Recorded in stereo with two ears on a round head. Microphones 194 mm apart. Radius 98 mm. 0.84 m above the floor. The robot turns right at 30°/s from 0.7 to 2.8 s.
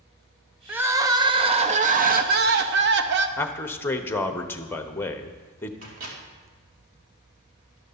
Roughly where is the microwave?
Right.